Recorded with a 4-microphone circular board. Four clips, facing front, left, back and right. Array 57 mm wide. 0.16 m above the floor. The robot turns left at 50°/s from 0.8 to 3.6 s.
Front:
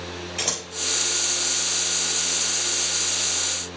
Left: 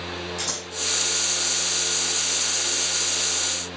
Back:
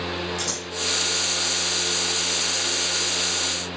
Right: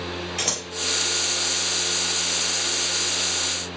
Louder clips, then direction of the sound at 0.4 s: Right 3 dB, even; 50° right.